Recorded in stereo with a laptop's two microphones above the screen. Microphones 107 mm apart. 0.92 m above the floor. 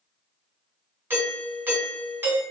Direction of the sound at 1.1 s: 20° right (ahead or behind).